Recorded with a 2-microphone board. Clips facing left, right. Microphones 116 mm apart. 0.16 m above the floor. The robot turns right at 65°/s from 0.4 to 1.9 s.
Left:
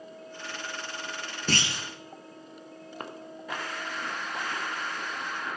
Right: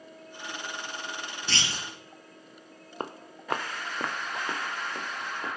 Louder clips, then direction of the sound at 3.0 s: Right 3 dB; 30° right (ahead or behind).